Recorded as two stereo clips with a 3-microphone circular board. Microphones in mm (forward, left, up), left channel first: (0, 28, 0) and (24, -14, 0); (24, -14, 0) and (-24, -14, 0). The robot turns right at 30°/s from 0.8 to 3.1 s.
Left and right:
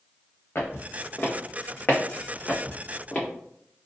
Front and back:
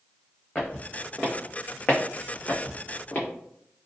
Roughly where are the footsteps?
Left.